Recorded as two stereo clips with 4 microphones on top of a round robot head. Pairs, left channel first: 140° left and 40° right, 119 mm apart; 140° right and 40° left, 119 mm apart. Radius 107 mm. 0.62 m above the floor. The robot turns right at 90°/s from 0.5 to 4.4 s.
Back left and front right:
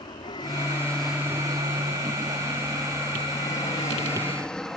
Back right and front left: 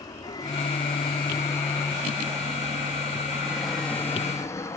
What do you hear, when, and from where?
0.0 s an aircraft: 175° left; by 4.8 s 135° right